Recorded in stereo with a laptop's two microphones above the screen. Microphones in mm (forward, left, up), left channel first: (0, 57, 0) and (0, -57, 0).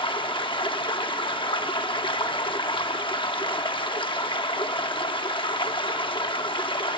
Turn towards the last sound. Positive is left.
turn(degrees=45)  # may be behind; listen again after turning